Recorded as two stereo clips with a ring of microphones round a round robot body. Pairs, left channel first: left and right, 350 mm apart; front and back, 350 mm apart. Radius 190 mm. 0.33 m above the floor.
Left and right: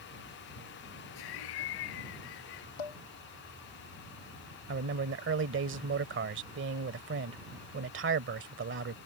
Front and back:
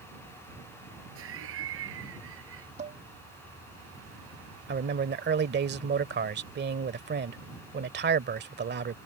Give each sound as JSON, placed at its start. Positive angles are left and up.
{"t": 1.1, "sound": "laughter", "azimuth_deg": 120}
{"t": 2.8, "sound": "dishes clattering", "azimuth_deg": 105}
{"t": 4.7, "sound": "a man speaking", "azimuth_deg": -130}